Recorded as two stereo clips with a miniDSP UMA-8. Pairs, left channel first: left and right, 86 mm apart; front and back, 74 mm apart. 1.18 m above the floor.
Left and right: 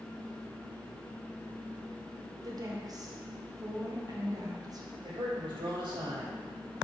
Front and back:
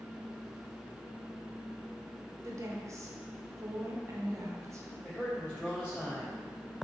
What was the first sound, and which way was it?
A woman speaking, 135° right.